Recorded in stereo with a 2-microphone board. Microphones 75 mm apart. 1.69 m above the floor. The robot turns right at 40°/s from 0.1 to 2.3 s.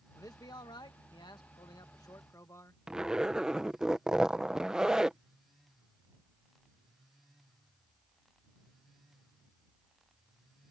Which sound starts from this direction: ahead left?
A man speaking, at 0.1 s.